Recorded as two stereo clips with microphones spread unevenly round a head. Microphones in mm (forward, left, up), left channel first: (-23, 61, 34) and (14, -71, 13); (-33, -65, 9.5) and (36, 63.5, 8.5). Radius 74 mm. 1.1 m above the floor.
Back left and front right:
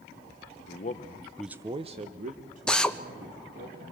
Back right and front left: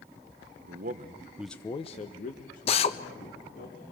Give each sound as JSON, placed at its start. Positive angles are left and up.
{"t": 0.6, "sound": "a man speaking", "azimuth_deg": 75, "distance_m": 1.4}
{"t": 2.7, "sound": "a drill", "azimuth_deg": -165, "distance_m": 1.1}